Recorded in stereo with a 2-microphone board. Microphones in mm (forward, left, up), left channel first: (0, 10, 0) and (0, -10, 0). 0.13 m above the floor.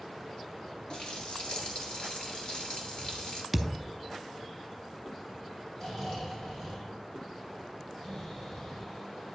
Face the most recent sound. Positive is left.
turn(degrees=35)  # may be behind; listen again after turning